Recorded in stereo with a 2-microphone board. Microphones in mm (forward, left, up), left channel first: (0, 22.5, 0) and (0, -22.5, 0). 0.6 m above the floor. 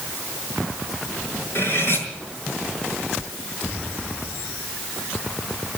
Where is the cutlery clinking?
55° left (ahead or behind), 6 m.